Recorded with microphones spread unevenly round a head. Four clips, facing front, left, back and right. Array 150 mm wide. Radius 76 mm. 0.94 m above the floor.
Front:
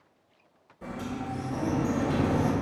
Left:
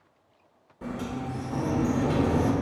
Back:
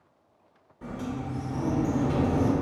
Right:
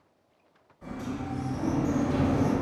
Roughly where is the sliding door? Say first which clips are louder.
Left 2 dB, back 1 dB; left.